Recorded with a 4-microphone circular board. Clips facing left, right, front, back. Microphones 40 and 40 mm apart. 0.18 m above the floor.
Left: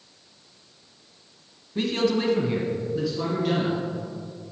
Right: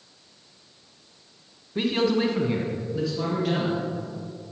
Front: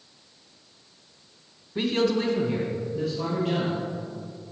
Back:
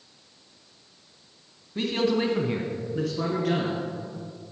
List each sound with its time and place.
1.8 s a man speaking: 40° right, 1.2 m; by 3.9 s 175° left, 3 m